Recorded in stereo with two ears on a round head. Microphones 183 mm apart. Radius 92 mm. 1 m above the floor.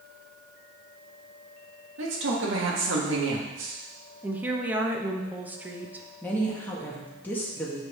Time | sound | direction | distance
2.0 | a man speaking | 65° right (ahead or behind) | 1.9 m
4.2 | a woman speaking | 10° right (ahead or behind) | 0.9 m
6.2 | a woman speaking | 10° left (ahead or behind) | 1.3 m